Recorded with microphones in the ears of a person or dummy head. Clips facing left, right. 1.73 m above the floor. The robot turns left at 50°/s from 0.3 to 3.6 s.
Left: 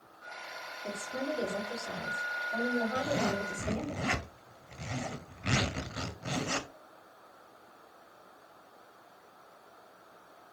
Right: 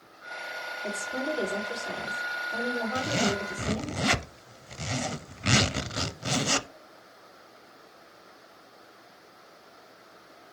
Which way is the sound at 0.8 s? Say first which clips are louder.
Right 3 dB; 75° right.